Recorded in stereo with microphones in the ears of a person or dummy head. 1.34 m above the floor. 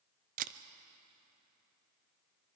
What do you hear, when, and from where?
0.4 s a camera shutter: 45° right (ahead or behind), 0.7 m